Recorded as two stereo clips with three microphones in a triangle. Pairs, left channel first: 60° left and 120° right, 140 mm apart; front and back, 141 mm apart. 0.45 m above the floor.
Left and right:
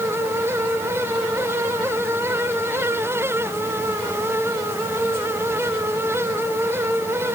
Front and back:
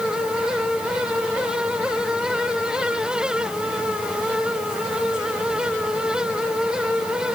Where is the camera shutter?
No camera shutter in this recording.